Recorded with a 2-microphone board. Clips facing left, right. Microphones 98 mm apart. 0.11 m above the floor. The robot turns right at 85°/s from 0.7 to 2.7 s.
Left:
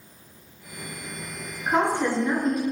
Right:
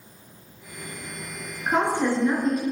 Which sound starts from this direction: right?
A woman speaking, at 1.7 s.